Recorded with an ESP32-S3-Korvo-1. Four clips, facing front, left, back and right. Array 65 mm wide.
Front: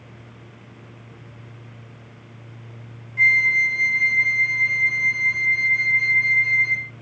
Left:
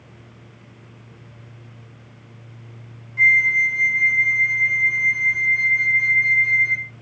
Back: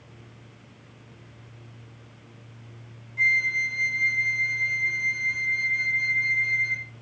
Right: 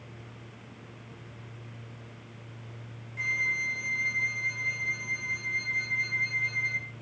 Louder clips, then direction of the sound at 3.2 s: Left 14 dB, front 6 dB; 25° left.